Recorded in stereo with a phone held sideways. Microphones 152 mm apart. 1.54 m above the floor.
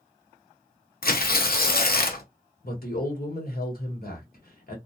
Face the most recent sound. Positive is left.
turn(degrees=70)  # may be behind; listen again after turning